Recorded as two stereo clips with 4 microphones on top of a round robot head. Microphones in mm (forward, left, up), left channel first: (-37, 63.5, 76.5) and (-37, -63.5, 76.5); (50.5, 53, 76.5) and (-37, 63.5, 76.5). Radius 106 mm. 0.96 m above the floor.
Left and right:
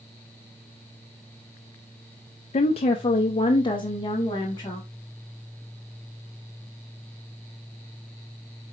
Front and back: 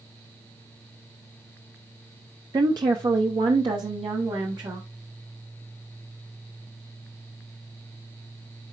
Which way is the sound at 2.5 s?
125° left.